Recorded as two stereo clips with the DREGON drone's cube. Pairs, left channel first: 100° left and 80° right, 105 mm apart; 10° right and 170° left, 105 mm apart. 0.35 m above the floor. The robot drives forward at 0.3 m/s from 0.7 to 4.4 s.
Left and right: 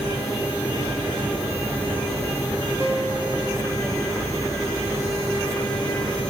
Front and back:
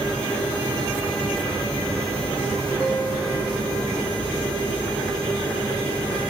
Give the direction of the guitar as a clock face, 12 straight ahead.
2 o'clock.